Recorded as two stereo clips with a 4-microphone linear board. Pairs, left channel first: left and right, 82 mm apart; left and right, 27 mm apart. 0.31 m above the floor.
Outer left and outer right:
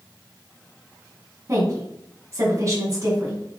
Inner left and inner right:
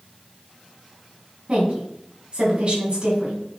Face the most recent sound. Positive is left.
turn(degrees=-40)  # may be behind; listen again after turning